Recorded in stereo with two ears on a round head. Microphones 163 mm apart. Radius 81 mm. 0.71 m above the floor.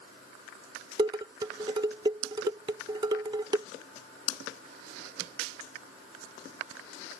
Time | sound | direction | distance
1.0 | dishes clattering | 25° right (ahead or behind) | ?